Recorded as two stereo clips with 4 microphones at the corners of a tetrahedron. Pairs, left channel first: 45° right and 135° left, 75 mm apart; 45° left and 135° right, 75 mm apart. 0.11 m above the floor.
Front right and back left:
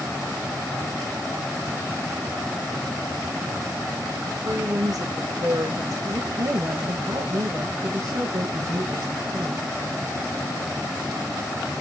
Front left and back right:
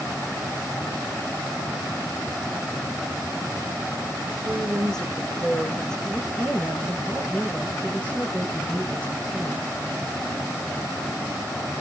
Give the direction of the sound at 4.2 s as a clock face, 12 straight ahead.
8 o'clock.